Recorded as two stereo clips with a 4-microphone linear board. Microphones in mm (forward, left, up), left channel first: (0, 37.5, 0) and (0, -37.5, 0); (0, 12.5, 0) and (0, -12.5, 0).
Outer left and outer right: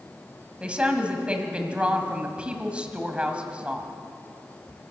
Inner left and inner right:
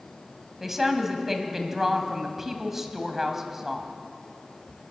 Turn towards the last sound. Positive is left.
turn(degrees=-15)  # may be behind; listen again after turning